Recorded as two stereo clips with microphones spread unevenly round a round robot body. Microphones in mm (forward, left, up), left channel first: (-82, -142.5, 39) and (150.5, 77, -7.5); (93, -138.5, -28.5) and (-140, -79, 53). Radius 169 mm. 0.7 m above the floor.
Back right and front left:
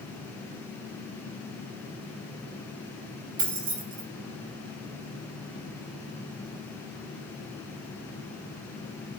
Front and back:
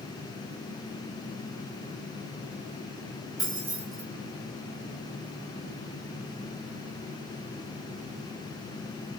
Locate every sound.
3.4 s keys jangling: 55° left, 0.8 m